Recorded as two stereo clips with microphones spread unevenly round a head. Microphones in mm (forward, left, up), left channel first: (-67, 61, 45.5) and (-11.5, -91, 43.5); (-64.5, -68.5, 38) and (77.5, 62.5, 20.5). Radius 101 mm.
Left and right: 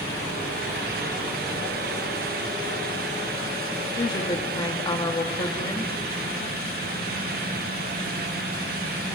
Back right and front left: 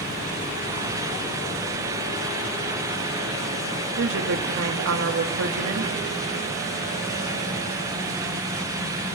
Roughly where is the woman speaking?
Ahead left.